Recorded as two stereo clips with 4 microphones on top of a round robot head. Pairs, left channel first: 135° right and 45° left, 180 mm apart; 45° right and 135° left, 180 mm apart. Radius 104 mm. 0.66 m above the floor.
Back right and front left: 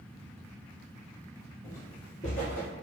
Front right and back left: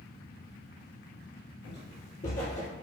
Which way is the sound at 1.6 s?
55° right.